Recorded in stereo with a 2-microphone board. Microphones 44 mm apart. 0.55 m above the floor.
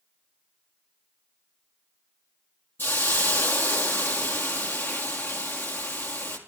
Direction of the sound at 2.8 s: 55° left (ahead or behind).